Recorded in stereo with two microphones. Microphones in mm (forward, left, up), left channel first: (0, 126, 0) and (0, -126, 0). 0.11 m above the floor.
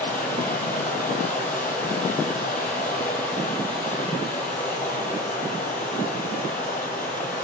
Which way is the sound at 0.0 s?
5° left (ahead or behind).